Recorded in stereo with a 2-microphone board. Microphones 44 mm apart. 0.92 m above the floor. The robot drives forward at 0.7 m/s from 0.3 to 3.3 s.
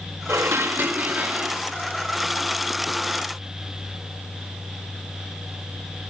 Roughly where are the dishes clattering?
Right.